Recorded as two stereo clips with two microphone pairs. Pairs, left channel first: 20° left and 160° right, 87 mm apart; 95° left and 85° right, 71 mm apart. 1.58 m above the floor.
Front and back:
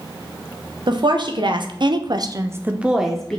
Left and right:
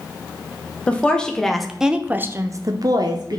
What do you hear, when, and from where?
0.9 s a woman speaking: 170° left, 1.4 m; by 3.4 s 65° right, 1.0 m